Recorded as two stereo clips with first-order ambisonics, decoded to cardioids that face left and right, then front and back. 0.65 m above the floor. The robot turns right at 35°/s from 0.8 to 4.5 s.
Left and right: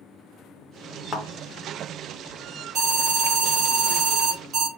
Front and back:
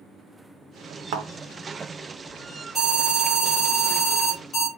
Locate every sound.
1.1 s a thud: 165° left, 0.9 m; by 1.3 s 170° left, 0.9 m
2.8 s an alarm: 115° right, 1.5 m; by 4.7 s 50° right, 1.5 m